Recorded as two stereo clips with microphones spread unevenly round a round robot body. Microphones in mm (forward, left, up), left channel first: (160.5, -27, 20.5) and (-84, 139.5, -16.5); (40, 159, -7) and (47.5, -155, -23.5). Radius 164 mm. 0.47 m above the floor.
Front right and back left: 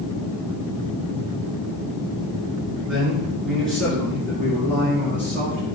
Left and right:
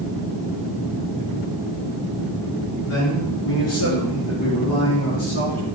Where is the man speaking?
55° left, 5.5 m; by 5.6 s 50° left, 8.5 m.